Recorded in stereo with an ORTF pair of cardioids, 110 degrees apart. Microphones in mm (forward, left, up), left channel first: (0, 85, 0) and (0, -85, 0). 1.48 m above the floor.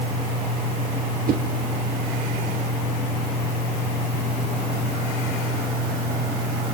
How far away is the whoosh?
About 1.0 m.